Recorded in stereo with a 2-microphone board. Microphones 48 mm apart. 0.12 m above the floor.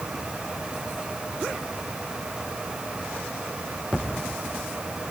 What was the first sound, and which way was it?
Only background noise.